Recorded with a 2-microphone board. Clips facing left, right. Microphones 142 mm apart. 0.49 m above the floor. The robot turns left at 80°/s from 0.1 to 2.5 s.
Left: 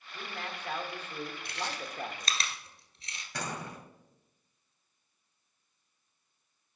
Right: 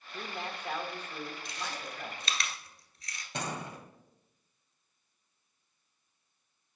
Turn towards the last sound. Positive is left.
turn(degrees=-25)  # may be behind; listen again after turning